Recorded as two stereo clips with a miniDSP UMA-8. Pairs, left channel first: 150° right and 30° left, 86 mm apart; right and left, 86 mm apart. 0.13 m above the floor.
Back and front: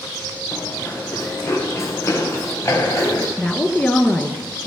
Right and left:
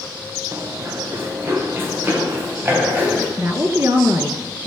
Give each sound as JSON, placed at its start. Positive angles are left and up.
{"t": 0.5, "sound": "running footsteps", "azimuth_deg": 145, "distance_m": 1.7}
{"t": 3.4, "sound": "a woman speaking", "azimuth_deg": 135, "distance_m": 1.5}